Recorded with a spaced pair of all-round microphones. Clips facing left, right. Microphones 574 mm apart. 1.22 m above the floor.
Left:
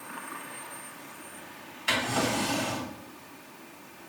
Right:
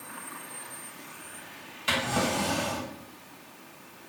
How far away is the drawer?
About 2 m.